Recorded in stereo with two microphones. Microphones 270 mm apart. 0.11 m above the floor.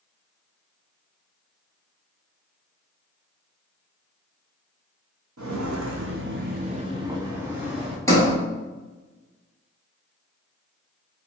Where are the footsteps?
85° right, 0.6 m; by 8.0 s centre (ahead or behind), 1.3 m.